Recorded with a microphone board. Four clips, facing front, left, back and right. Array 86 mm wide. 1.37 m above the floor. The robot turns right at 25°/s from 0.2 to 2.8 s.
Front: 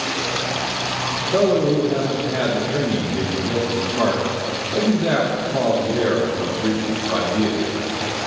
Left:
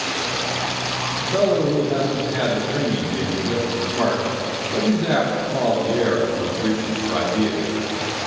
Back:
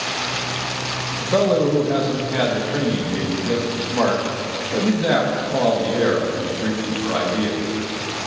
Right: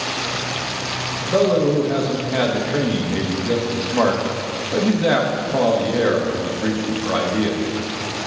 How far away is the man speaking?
About 1.4 m.